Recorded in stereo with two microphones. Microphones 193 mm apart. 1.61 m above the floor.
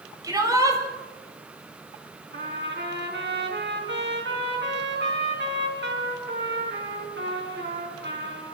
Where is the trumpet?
65° right (ahead or behind), 6 m.